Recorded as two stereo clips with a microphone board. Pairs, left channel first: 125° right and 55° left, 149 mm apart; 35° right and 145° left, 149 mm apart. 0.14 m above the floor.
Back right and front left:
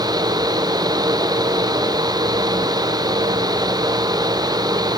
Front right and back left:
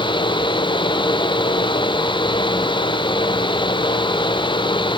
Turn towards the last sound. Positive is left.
No sound to turn to.